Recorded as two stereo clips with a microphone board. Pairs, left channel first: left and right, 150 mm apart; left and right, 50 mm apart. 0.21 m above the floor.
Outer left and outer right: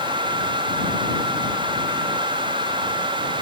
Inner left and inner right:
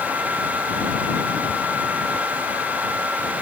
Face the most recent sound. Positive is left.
No sound to turn to.